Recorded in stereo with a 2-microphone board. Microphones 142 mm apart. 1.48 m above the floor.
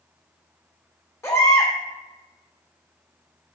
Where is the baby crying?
20° left (ahead or behind), 2.5 m.